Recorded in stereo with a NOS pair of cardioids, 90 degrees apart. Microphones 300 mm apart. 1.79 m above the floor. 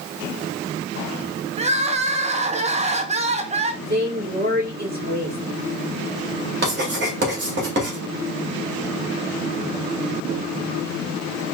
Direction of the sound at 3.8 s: 30° right.